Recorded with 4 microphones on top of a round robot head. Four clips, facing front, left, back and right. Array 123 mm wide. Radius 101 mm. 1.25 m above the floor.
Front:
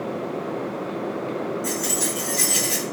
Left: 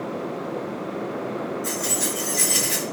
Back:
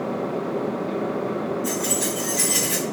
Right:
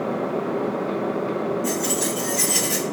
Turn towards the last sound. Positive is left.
turn(degrees=80)